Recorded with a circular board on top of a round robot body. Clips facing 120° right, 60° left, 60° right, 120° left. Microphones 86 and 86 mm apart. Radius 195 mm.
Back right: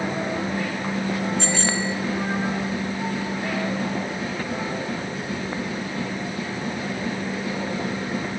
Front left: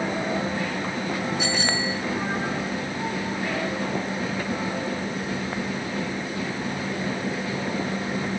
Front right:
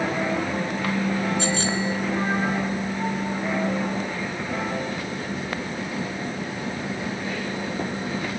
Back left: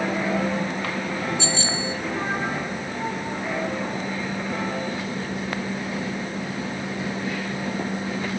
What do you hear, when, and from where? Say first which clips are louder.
1.4 s a bicycle bell: back right 1 dB, front right 2 dB; 25° right, 5 m